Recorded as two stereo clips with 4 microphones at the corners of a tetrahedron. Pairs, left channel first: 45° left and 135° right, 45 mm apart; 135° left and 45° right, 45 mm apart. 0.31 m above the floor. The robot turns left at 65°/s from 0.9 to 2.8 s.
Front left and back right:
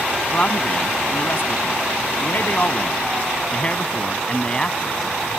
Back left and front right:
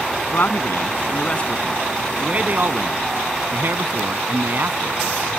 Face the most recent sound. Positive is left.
turn(degrees=-20)